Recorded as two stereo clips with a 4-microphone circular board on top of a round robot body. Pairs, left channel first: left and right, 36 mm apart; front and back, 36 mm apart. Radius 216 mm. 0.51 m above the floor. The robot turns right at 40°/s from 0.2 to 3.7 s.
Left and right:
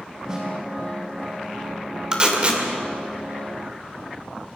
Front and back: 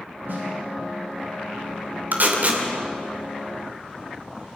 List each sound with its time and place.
0.3 s a snare drum: 160° right, 6.5 m; by 0.5 s 155° right, 6.5 m
2.1 s tape being pulled: 155° right, 3 m; by 2.6 s 135° right, 3 m